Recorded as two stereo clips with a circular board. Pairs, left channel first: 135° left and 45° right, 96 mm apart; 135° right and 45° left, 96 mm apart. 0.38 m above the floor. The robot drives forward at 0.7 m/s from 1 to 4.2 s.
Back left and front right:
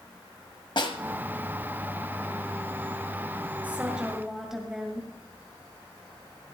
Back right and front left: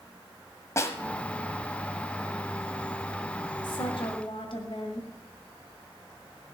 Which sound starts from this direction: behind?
A snare drum, at 0.8 s.